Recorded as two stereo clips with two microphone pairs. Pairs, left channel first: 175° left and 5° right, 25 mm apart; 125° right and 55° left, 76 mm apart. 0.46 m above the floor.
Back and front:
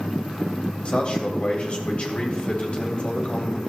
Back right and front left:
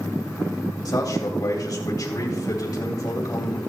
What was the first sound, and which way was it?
A man speaking, 150° right.